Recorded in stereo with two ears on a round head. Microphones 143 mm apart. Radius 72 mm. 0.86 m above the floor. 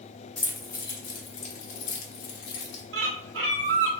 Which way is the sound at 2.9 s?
80° right.